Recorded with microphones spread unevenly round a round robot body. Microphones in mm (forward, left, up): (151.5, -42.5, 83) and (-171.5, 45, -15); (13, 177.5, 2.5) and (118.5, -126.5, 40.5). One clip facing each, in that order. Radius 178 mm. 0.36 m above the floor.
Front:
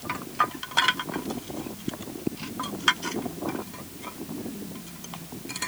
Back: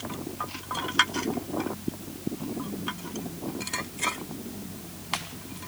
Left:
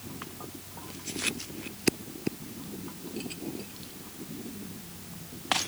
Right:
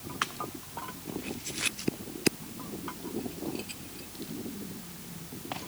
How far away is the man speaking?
No man speaking in this recording.